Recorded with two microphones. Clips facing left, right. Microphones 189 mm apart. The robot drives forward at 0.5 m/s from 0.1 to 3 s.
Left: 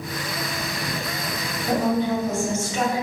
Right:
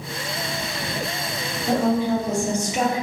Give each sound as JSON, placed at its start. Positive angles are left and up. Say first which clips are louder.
{"t": 1.7, "sound": "a woman speaking", "louder": "right 2 dB", "side_deg": -10, "distance_m": 1.2}